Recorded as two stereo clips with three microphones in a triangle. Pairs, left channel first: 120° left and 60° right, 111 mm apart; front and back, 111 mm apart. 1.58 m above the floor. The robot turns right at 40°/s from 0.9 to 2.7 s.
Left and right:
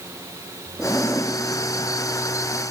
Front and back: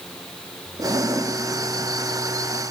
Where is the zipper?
155° right, 1.4 m; by 1.4 s 135° right, 1.4 m.